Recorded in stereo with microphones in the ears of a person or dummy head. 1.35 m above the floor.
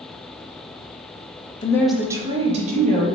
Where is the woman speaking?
20° left (ahead or behind), 0.6 m; by 3.1 s 50° right (ahead or behind), 1.5 m.